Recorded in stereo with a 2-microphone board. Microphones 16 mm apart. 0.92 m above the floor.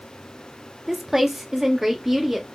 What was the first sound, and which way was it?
A woman speaking, 15° right (ahead or behind).